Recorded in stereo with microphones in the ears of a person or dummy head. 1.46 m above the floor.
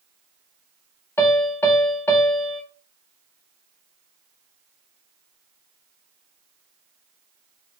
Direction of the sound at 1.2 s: 15° left (ahead or behind).